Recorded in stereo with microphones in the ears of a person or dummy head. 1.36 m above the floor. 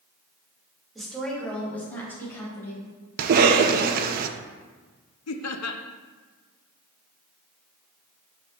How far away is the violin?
No violin in this recording.